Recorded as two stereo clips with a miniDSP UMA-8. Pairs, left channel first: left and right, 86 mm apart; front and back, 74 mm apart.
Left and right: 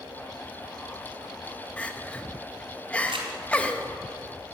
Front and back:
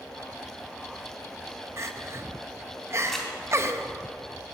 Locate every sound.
1.8 s crying: 155° left, 0.8 m
3.1 s crumpling: 85° right, 2.5 m